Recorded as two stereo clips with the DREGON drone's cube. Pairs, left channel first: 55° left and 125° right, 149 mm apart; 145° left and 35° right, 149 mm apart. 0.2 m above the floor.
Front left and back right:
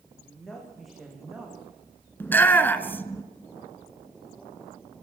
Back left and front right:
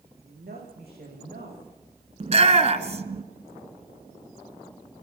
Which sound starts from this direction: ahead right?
A woman speaking, at 0.2 s.